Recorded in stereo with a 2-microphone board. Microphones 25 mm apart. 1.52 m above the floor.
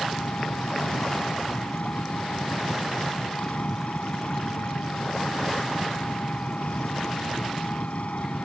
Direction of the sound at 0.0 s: 65° left (ahead or behind).